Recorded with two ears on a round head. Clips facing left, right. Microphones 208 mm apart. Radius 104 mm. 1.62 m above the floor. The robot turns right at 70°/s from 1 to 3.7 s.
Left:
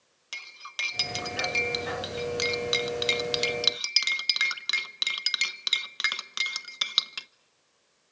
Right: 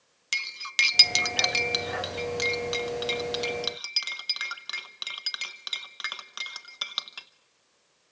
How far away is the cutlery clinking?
About 0.8 m.